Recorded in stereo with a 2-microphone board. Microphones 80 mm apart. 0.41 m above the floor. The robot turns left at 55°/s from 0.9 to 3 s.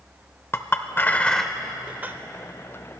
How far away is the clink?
About 0.6 m.